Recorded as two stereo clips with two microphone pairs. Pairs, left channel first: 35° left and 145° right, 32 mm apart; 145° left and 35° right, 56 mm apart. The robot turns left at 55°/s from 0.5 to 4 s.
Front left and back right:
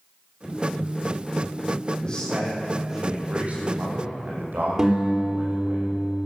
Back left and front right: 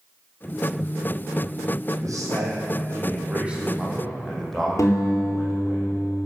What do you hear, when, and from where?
2.0 s a man speaking: 25° right, 6 m; by 5.8 s 135° right, 6 m
4.8 s a guitar: 145° left, 4 m